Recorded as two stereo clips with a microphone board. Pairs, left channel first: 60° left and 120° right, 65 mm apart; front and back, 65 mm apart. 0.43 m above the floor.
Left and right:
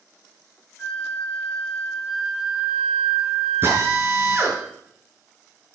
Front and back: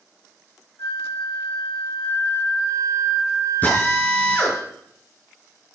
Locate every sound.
0.8 s a flute: 20° right, 6.5 m
3.6 s a drill: 65° right, 5.5 m